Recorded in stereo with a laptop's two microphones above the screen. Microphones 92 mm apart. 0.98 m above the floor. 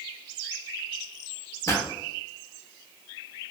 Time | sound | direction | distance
1.7 | a pop | 35° left (ahead or behind) | 0.7 m